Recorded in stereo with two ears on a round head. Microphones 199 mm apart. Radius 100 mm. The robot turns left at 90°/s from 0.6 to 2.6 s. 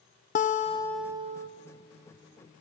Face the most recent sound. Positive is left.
turn(degrees=-145)